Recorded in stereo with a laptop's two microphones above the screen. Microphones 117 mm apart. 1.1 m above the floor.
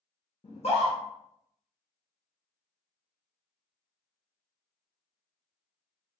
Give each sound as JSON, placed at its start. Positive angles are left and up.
{"t": 0.4, "sound": "a scream", "side_deg": 60, "distance_m": 1.1}